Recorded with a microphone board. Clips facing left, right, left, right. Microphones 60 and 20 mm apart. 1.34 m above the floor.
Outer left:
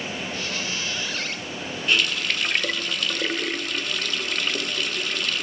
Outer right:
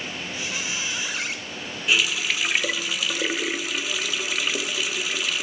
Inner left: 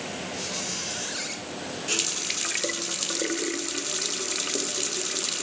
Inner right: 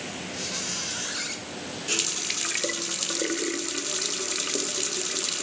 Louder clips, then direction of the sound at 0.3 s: Outer left 1 dB, inner right 2 dB; 10° right (ahead or behind).